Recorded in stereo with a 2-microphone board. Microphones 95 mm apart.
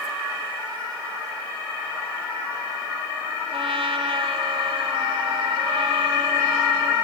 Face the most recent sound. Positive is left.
turn(degrees=-75)  # may be behind; listen again after turning